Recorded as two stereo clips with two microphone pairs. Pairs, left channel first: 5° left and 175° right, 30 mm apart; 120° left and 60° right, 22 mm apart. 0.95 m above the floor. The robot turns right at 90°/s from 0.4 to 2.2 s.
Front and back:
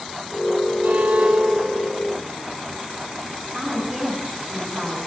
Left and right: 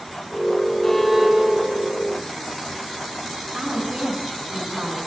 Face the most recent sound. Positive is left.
turn(degrees=-100)